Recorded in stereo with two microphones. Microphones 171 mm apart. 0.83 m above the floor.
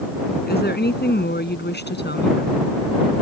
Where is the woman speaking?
70° left (ahead or behind); by 2.7 s 80° left.